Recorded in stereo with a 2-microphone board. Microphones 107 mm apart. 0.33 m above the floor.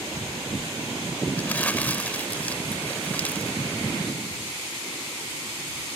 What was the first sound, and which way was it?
Crumpling, 15° left (ahead or behind).